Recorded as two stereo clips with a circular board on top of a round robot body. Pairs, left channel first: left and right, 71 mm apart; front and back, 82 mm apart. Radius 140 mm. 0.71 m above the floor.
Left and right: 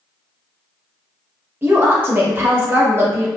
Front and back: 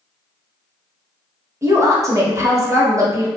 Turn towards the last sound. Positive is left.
turn(degrees=-140)